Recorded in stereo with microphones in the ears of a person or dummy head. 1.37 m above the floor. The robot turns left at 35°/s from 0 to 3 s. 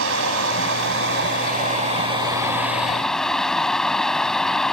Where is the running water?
80° right; by 4.7 s 175° left.